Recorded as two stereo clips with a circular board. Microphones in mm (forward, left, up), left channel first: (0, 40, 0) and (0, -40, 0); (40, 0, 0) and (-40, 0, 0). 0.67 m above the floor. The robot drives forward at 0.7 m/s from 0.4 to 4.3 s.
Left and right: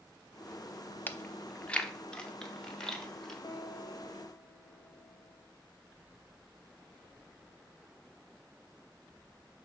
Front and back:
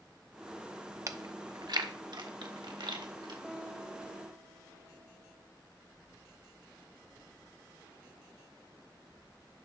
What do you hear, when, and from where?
1.1 s chewing: 150° left, 0.6 m; by 3.3 s 175° left, 2 m
3.4 s a guitar: 105° left, 1.7 m; by 5.5 s 125° left, 1.9 m